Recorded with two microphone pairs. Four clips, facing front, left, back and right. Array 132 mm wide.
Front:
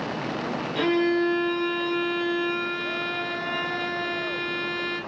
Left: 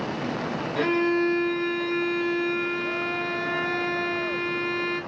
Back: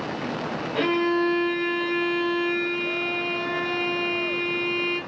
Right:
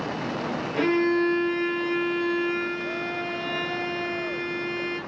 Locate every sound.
0.8 s a violin: 175° right, 1.2 m